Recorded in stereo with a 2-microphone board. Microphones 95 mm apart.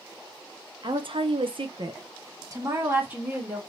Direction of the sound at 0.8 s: 60° right (ahead or behind).